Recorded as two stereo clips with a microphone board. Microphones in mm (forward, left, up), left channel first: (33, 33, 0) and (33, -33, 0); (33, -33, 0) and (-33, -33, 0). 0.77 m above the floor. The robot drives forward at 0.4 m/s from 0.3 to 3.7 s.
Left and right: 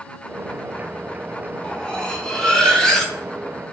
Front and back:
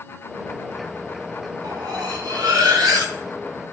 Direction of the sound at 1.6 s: 165° left.